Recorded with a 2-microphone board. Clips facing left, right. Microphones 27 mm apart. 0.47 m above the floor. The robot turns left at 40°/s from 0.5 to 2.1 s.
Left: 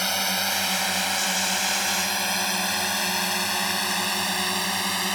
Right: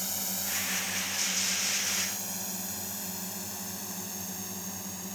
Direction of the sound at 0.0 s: 50° left (ahead or behind).